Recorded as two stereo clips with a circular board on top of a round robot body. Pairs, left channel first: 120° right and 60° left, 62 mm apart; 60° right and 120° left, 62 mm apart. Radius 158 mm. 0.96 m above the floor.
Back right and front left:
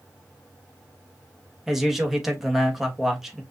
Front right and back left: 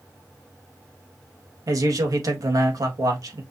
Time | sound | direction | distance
1.7 | a man speaking | 145° left | 1.3 m